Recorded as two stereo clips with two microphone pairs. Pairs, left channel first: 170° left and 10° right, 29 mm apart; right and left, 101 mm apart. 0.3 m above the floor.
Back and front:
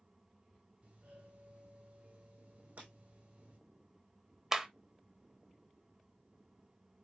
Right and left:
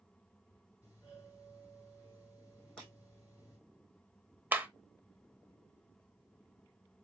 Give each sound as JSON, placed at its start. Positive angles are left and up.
{"t": 0.8, "sound": "a doorbell", "azimuth_deg": -30, "distance_m": 4.5}
{"t": 2.8, "sound": "breaking glass", "azimuth_deg": -10, "distance_m": 4.0}
{"t": 4.5, "sound": "a clap", "azimuth_deg": 45, "distance_m": 0.8}